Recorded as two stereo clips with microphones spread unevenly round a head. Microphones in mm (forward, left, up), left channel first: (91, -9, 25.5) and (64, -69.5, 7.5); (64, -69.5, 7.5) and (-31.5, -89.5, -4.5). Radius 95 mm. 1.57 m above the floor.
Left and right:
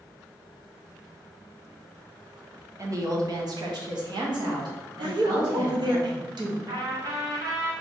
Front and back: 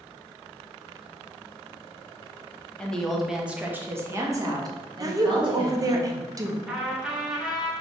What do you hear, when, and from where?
2.8 s a woman speaking: 65° right, 0.9 m; by 6.0 s 130° right, 1.8 m
5.0 s a woman speaking: 110° right, 0.7 m
6.7 s a trumpet: 80° right, 1.1 m